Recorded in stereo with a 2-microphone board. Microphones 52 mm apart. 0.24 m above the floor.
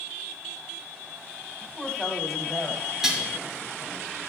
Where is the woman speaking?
Centre (ahead or behind), 2 m.